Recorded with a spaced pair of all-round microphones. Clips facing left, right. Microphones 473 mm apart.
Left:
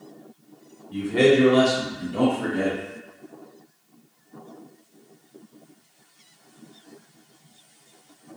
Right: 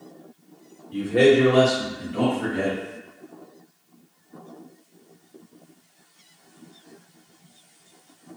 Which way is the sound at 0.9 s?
10° left (ahead or behind).